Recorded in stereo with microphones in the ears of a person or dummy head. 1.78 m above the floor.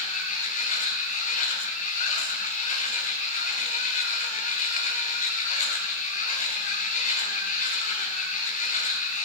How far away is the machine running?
About 1.2 m.